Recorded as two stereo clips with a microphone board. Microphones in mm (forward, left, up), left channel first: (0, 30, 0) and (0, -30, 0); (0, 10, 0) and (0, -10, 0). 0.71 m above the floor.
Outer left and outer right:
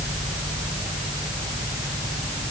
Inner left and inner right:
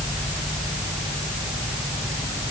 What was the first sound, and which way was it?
Only background noise.